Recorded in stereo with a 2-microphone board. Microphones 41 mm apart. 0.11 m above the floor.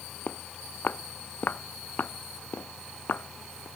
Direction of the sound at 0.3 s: 45° left (ahead or behind).